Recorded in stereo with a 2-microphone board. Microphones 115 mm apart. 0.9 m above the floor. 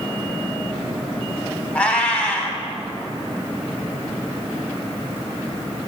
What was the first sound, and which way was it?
A cat meowing, 10° left (ahead or behind).